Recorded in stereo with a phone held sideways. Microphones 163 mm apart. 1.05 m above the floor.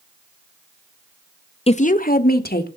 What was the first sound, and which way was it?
A woman speaking, 35° left (ahead or behind).